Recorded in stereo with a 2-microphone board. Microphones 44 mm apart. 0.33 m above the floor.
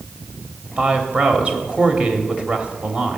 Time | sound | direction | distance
0.8 | a woman speaking | 30° right (ahead or behind) | 1.1 m